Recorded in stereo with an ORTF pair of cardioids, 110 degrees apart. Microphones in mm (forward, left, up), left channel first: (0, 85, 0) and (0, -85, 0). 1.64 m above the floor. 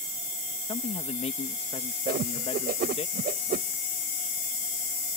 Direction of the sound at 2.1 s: 60° right.